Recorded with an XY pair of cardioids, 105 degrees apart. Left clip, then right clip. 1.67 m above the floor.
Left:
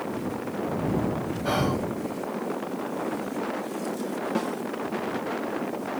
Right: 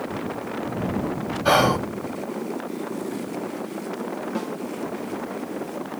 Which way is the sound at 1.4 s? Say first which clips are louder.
Right 9 dB; 60° right.